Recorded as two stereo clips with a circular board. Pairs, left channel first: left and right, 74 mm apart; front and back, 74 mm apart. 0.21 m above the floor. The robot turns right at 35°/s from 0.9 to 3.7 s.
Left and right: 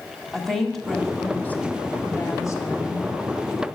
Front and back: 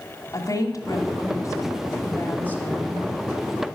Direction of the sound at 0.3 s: 5° left.